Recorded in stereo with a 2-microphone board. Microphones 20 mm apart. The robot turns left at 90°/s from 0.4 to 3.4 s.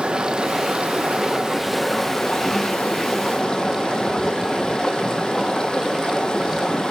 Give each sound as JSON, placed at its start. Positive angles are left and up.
{"t": 0.0, "sound": "running water", "azimuth_deg": -50, "distance_m": 0.9}